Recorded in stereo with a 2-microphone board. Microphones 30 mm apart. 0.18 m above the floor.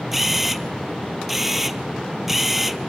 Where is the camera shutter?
5° right (ahead or behind), 1.2 m.